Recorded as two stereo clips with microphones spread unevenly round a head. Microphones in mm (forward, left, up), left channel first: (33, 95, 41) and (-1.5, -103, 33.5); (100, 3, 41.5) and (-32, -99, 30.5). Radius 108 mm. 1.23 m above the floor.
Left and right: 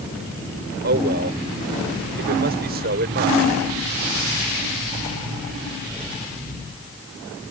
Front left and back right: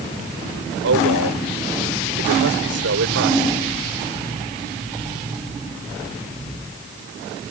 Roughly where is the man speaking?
Behind right.